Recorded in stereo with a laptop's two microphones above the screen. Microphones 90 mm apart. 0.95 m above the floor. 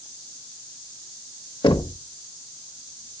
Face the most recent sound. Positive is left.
turn(degrees=65)  # may be behind; listen again after turning